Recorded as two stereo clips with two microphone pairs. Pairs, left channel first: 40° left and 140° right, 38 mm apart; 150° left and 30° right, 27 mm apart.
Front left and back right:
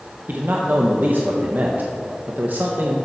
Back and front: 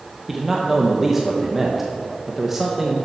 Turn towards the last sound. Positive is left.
turn(degrees=-110)